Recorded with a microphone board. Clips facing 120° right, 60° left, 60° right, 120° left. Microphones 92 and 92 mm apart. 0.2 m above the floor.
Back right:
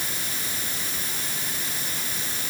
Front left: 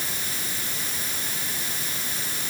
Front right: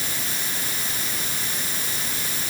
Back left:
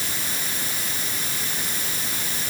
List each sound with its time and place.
Only background noise.